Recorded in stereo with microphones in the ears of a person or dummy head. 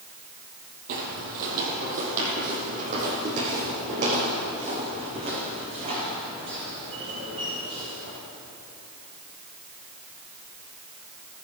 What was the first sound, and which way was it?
Footsteps, 45° right (ahead or behind).